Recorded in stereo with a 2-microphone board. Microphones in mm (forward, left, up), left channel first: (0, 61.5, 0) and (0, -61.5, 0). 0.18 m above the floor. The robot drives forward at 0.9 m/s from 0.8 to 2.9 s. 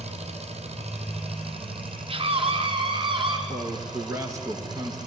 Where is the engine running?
60° right (ahead or behind), 2.5 m; by 5.1 s 35° right (ahead or behind), 4 m.